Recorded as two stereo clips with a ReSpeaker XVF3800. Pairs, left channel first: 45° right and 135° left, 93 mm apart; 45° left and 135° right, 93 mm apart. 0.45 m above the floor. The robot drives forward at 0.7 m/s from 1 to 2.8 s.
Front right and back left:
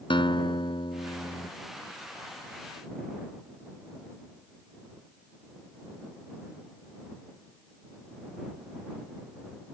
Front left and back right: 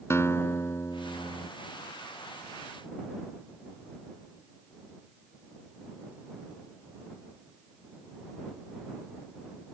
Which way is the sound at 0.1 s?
15° right.